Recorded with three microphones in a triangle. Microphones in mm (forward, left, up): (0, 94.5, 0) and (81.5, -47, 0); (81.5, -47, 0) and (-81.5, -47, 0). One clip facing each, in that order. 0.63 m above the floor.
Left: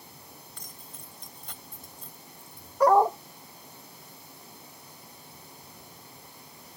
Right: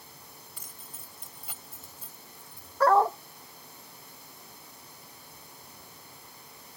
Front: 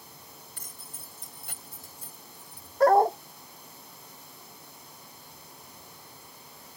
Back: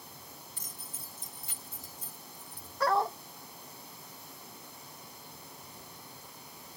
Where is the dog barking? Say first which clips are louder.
Left 2 dB, front 9 dB; 45° left.